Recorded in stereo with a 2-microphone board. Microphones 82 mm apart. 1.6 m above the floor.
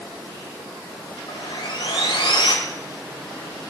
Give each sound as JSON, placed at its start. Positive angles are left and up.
{"t": 1.3, "sound": "sawing", "side_deg": 65, "distance_m": 1.6}